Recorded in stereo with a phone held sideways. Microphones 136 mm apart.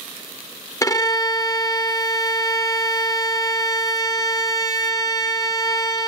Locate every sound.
0.8 s a violin: 25° left (ahead or behind), 0.7 m